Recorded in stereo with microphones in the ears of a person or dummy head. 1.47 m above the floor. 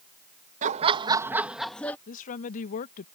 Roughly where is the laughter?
Right.